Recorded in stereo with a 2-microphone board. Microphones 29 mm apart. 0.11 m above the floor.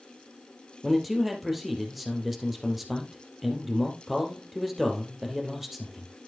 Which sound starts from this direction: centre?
A man speaking, at 0.8 s.